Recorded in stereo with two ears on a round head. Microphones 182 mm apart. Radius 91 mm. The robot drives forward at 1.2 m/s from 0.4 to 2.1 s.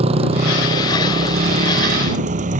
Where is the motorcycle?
30° right (ahead or behind); by 2.6 s 40° right (ahead or behind).